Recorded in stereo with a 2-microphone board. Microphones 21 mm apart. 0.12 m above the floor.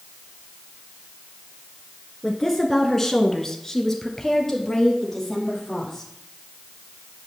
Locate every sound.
2.2 s a woman speaking: 5° left (ahead or behind), 1.5 m; by 6.0 s 10° left (ahead or behind), 4 m